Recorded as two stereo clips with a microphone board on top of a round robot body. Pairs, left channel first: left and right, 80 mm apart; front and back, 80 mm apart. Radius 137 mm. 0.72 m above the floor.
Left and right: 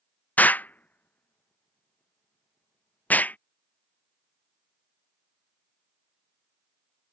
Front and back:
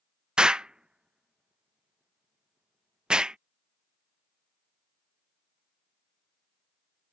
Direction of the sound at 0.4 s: 120° left.